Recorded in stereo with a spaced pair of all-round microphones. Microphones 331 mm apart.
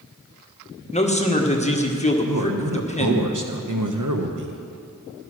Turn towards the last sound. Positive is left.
turn(degrees=-65)  # may be behind; listen again after turning